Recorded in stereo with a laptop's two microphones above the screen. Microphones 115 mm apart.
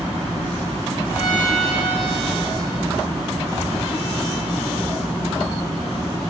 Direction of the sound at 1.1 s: 40° left (ahead or behind).